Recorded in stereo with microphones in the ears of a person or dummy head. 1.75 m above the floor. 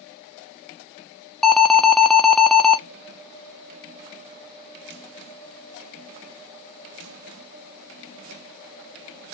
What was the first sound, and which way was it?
An alarm, 5° left (ahead or behind).